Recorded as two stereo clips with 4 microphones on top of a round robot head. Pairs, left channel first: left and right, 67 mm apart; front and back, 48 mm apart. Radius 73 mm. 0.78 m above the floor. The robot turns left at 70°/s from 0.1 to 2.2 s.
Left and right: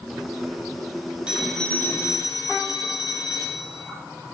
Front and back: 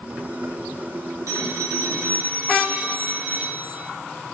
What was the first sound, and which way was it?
A phone ringing, 165° right.